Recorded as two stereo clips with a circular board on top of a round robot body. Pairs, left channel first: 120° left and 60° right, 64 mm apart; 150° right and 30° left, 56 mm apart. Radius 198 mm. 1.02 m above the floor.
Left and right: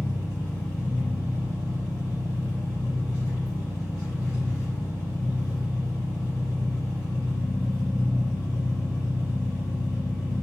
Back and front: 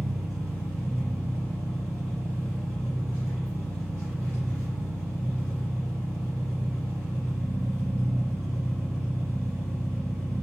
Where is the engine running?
65° left, 1.6 m.